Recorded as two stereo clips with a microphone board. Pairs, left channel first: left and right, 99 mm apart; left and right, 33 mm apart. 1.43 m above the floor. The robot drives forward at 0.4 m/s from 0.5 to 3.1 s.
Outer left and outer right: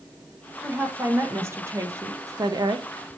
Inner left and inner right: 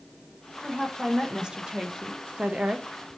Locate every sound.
0.6 s a woman speaking: 20° right (ahead or behind), 1.3 m; by 2.9 s 50° right (ahead or behind), 0.6 m